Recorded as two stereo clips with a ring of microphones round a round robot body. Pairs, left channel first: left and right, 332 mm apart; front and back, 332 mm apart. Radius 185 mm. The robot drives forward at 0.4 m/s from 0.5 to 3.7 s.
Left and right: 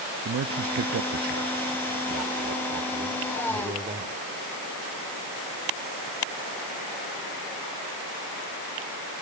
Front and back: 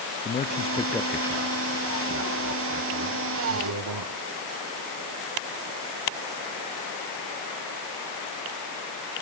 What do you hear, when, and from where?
0.2 s a man speaking: 60° right, 0.7 m; by 4.2 s 160° right, 1.2 m